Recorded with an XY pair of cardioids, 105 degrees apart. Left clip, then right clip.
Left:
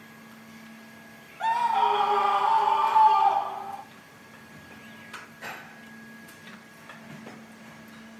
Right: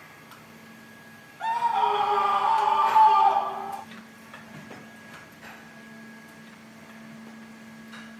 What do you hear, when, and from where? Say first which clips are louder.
1.4 s a scream: left 1 dB; 25° left, 1.3 m; by 3.8 s 20° right, 2 m